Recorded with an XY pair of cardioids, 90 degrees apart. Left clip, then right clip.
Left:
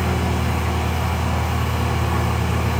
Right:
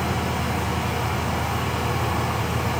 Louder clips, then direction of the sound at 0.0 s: Left 1 dB; 20° left.